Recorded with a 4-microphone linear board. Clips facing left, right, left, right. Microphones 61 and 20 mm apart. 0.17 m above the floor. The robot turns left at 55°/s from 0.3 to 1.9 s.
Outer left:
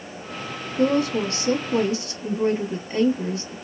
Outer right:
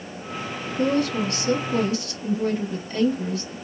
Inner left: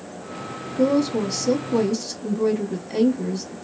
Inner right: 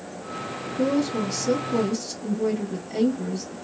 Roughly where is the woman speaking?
Left.